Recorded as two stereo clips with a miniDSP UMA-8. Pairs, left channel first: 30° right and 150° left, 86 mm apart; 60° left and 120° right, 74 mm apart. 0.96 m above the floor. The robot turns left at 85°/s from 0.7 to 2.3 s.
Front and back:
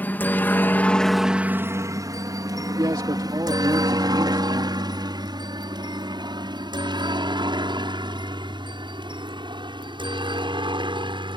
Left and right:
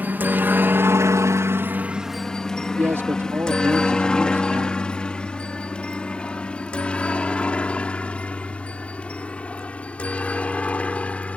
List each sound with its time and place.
0.0 s a helicopter: 80° right; by 11.4 s 135° left
2.8 s a man speaking: 175° right